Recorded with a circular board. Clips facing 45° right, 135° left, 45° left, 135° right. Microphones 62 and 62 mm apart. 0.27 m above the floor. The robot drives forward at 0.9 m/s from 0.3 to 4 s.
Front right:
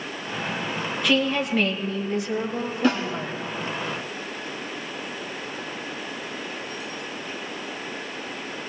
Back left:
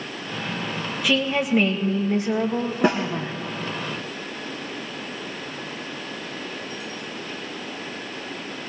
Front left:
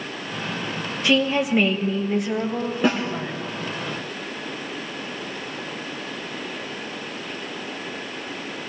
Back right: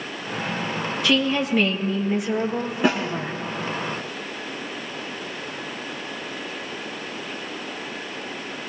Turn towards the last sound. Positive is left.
turn(degrees=145)